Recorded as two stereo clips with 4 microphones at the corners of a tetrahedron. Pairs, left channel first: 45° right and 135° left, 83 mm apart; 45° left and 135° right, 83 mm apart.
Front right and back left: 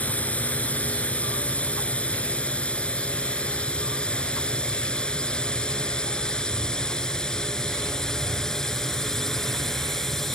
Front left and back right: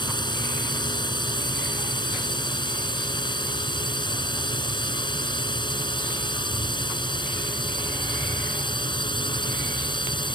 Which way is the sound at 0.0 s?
25° left.